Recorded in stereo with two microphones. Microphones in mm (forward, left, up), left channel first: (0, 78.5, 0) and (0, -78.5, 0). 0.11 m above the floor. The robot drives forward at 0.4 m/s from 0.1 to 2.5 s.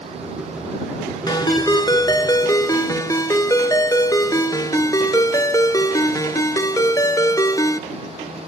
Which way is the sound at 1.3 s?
25° left (ahead or behind).